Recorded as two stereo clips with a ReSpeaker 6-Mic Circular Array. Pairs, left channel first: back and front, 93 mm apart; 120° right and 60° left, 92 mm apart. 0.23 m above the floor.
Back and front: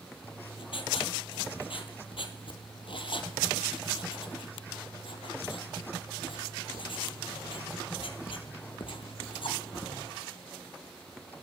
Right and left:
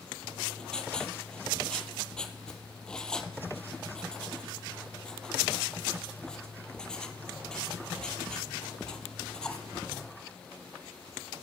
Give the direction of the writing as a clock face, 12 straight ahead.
7 o'clock.